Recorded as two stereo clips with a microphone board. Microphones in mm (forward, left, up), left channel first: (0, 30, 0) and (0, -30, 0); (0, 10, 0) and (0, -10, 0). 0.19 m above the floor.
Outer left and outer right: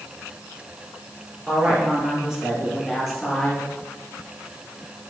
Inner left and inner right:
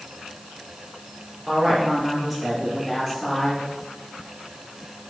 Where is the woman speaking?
15° right (ahead or behind), 3.5 m; by 3.6 s 10° left (ahead or behind), 2.5 m.